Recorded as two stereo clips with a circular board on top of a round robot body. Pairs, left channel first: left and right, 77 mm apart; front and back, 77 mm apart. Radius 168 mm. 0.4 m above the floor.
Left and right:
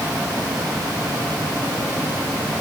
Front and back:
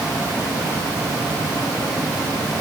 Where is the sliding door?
No sliding door in this recording.